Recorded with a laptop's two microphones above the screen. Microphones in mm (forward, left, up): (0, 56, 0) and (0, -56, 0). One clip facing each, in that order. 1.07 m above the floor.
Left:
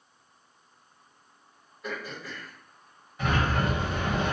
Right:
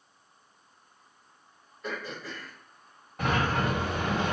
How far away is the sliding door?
About 1.1 m.